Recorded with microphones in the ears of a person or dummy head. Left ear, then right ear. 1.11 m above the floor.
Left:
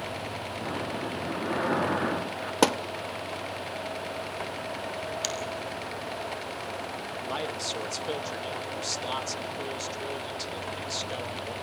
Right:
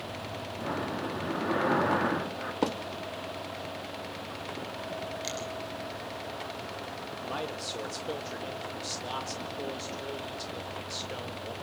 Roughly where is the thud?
Left.